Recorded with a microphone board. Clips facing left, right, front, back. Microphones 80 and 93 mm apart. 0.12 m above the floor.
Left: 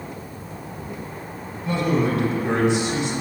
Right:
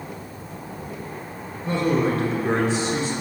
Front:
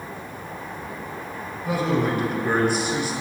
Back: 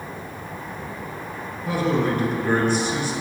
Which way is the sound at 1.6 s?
70° right.